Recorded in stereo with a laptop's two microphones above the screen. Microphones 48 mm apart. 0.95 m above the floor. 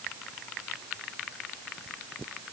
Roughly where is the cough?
No cough in this recording.